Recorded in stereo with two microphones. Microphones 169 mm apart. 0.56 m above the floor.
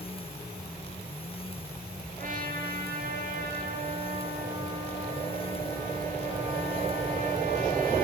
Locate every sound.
2.2 s a trumpet: 55° right (ahead or behind), 8.5 m